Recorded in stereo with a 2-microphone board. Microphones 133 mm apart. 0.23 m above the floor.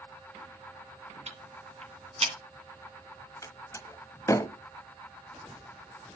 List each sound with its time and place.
1.3 s ticking: 55° right (ahead or behind), 2 m
3.4 s a door slam: 25° left (ahead or behind), 0.9 m